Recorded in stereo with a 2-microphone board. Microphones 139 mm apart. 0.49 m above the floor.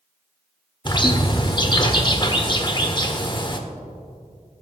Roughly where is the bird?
Left.